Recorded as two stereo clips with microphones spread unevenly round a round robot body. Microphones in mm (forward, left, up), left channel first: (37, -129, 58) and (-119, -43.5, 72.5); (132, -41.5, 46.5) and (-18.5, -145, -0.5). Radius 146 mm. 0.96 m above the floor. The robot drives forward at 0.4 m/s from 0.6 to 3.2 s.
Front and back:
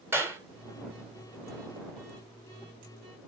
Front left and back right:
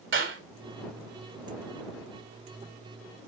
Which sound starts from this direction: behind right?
A clap, at 0.1 s.